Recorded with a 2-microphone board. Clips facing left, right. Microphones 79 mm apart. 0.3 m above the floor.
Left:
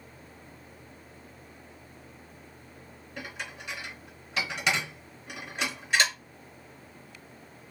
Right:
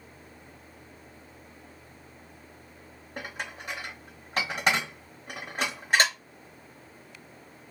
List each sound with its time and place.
3.2 s dishes clattering: 45° right (ahead or behind), 0.7 m